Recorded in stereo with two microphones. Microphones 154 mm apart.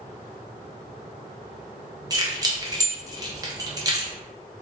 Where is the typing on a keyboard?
No typing on a keyboard in this recording.